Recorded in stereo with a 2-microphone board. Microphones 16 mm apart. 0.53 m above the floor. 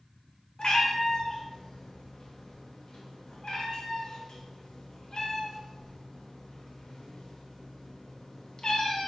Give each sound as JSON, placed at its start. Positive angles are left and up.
{"t": 0.6, "sound": "a cat meowing", "side_deg": 55, "distance_m": 0.6}